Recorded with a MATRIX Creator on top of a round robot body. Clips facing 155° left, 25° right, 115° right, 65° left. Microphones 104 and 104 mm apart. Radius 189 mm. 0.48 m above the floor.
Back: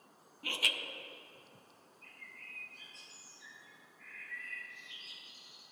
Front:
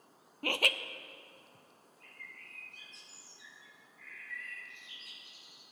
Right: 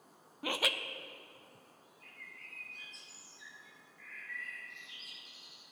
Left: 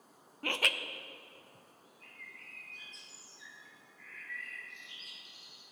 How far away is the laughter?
About 0.9 m.